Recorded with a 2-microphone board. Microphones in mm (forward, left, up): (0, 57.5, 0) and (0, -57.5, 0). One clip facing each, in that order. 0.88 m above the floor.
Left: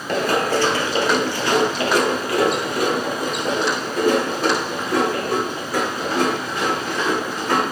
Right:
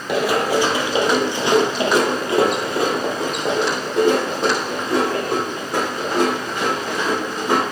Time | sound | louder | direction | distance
0.1 | running footsteps | right 1 dB | 5° right (ahead or behind) | 1.1 m